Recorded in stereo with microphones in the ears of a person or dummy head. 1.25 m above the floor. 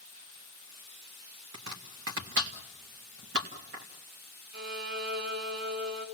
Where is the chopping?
65° right (ahead or behind), 1.8 m.